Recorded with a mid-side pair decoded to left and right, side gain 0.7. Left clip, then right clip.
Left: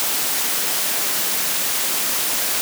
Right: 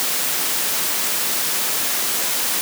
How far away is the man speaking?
No man speaking in this recording.